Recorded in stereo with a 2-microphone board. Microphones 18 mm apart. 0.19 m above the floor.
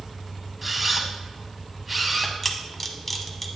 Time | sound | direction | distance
0.6 | a camera shutter | 10° right (ahead or behind) | 1.2 m
2.4 | a camera shutter | 5° left (ahead or behind) | 1.0 m